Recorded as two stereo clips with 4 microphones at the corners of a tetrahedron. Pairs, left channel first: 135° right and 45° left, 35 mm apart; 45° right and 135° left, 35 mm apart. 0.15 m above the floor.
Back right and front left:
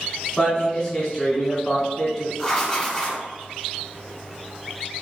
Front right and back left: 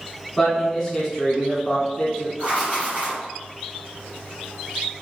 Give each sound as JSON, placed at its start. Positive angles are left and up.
{"t": 0.4, "sound": "a man speaking", "azimuth_deg": -100, "distance_m": 1.1}
{"t": 2.4, "sound": "writing", "azimuth_deg": 150, "distance_m": 1.6}